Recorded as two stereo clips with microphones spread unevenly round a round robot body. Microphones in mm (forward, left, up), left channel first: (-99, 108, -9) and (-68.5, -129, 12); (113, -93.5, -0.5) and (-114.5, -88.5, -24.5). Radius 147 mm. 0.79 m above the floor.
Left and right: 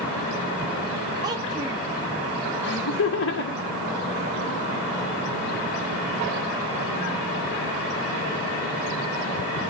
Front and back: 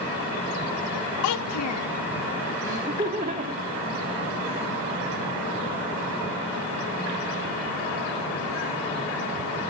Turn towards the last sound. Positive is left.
turn(degrees=115)